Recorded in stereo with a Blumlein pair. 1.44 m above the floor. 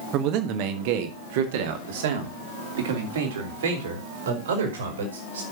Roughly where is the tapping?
I don't hear tapping.